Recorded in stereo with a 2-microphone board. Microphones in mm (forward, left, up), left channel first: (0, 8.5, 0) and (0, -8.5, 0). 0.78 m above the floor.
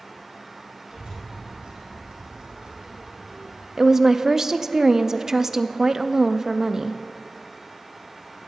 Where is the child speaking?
70° right (ahead or behind), 5 m.